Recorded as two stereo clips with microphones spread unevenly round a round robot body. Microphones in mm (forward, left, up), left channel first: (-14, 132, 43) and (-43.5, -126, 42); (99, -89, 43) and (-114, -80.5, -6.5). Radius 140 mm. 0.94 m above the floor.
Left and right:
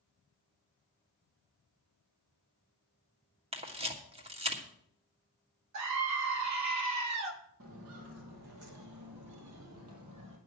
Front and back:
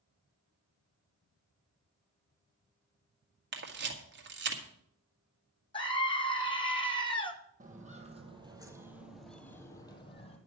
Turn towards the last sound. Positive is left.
turn(degrees=-50)